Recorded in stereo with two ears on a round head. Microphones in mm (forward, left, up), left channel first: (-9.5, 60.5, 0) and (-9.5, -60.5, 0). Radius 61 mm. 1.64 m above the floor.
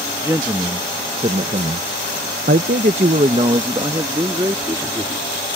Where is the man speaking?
20° right (ahead or behind).